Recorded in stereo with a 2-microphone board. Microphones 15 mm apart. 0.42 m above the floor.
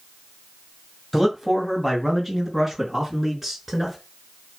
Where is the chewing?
I don't hear chewing.